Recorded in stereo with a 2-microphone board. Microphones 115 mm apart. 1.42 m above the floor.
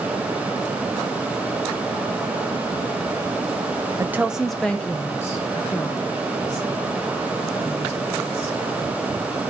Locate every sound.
4.0 s a woman speaking: 20° right (ahead or behind), 0.6 m; by 8.6 s 50° left (ahead or behind), 2.5 m